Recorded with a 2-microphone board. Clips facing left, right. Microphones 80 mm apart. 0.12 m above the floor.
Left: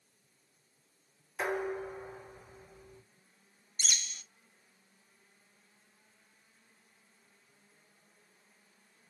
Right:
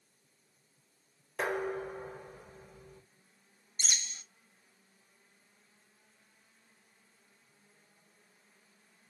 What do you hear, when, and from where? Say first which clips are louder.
1.4 s dishes clattering: even; 70° right (ahead or behind), 2.5 m
3.8 s a bird: even; 30° right (ahead or behind), 0.6 m